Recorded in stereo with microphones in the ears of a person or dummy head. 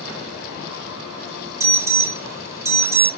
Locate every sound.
1.6 s an alarm: 10° right (ahead or behind), 0.7 m